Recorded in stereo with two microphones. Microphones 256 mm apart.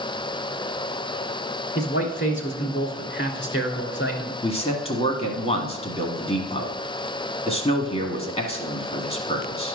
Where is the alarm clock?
No alarm clock in this recording.